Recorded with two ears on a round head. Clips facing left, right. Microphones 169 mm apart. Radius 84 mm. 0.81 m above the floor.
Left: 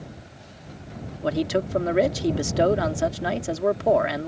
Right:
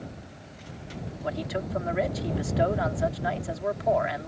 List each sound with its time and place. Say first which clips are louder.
1.2 s a man speaking: left 8 dB; 55° left (ahead or behind)